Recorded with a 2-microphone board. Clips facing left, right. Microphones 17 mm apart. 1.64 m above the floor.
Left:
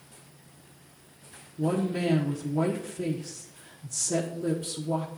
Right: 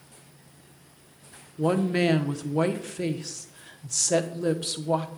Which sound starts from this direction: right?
A woman speaking, at 1.6 s.